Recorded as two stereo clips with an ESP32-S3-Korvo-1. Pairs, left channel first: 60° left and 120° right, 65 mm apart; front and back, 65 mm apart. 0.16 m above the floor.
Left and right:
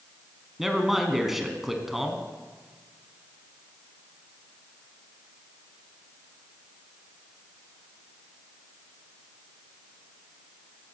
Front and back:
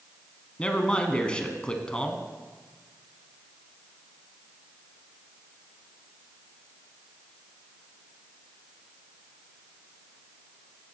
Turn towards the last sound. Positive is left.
turn(degrees=-40)